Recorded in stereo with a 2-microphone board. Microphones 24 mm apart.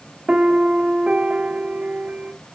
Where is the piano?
55° right (ahead or behind), 0.7 m.